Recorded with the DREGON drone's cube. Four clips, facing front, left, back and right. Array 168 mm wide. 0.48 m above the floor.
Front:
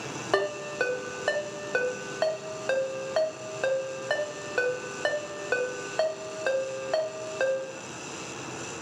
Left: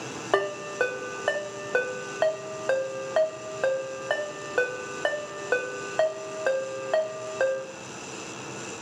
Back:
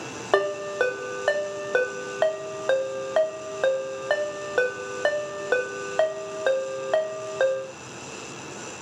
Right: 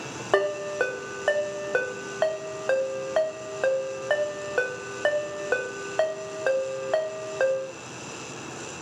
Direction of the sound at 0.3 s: 175° right.